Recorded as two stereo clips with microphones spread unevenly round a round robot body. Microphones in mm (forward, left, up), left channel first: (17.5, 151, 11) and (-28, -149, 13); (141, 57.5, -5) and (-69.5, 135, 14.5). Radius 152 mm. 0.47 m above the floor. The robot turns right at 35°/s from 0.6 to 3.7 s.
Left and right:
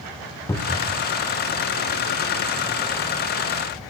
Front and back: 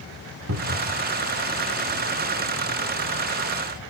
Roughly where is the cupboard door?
Behind.